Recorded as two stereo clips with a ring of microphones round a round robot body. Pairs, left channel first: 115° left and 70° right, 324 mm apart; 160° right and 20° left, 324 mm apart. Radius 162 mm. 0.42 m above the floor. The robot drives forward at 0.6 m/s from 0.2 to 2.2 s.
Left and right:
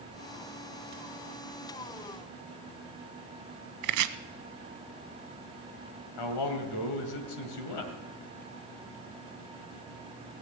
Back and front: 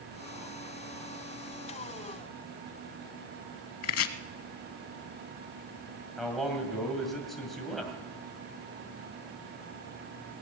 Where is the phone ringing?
No phone ringing in this recording.